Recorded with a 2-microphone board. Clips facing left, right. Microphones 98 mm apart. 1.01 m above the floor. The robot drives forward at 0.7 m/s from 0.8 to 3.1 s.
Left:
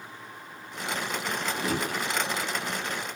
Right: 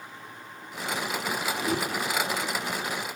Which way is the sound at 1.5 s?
35° left (ahead or behind).